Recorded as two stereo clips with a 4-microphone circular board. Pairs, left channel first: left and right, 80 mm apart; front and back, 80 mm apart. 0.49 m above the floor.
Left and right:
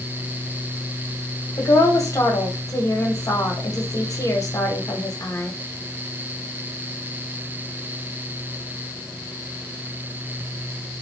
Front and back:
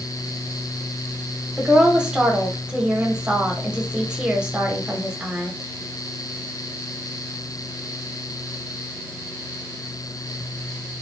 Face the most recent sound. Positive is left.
turn(degrees=105)